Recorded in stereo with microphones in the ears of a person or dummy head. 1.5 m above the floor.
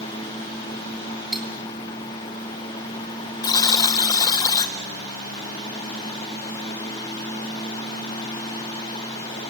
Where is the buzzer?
25° left (ahead or behind), 0.7 m.